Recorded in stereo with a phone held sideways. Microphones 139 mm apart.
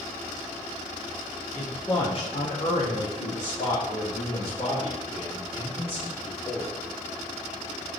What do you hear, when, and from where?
1.6 s a man speaking: 10° left (ahead or behind), 0.8 m; by 6.7 s 50° left (ahead or behind), 3.5 m